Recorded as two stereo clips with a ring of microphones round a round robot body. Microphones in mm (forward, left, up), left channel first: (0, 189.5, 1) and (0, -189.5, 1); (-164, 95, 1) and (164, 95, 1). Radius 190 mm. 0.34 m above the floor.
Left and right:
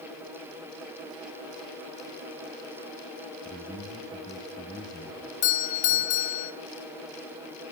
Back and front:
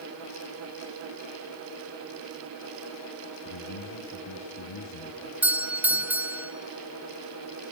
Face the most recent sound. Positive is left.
turn(degrees=85)